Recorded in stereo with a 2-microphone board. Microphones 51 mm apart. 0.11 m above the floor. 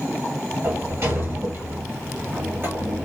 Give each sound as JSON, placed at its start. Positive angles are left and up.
{"t": 0.6, "sound": "a sliding door", "side_deg": -45, "distance_m": 1.1}